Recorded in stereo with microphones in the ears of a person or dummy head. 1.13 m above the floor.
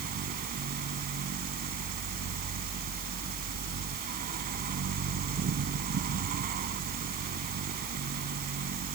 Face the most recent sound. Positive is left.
turn(degrees=-45)  # may be behind; listen again after turning